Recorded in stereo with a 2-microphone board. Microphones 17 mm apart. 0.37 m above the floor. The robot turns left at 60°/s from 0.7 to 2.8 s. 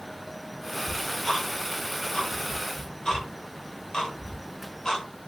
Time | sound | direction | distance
0.9 | ticking | 5° left (ahead or behind) | 0.9 m